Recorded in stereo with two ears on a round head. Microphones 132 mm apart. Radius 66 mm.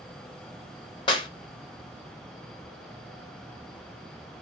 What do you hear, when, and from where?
1.1 s a clap: 35° left (ahead or behind), 0.7 m